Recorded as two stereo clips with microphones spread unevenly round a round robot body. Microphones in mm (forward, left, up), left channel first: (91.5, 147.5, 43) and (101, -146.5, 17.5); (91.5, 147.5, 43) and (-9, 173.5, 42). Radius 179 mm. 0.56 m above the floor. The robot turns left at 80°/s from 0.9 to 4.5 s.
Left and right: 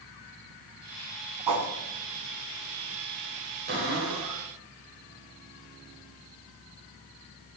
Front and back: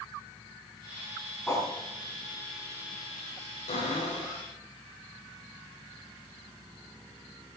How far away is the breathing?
I don't hear breathing.